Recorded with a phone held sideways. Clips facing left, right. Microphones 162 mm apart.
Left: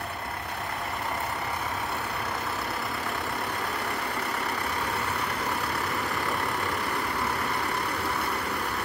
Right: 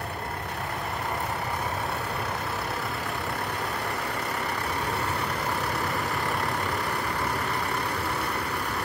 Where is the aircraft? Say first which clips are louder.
Right 1 dB; 40° right (ahead or behind); by 8.9 s 35° right (ahead or behind).